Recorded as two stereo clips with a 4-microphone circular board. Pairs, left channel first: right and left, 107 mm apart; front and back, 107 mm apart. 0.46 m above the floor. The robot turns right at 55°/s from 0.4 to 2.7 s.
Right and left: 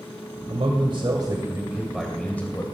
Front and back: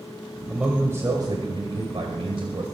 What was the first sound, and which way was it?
A man speaking, 95° left.